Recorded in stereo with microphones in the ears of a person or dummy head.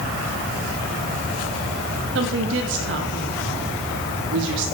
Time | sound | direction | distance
2.1 | a woman speaking | 70° right (ahead or behind) | 2.5 m